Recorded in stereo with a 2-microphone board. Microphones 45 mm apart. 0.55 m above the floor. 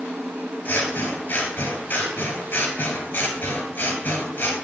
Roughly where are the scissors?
Left.